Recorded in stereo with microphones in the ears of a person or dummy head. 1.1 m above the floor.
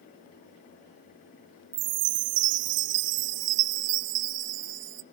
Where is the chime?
55° right (ahead or behind), 0.5 m.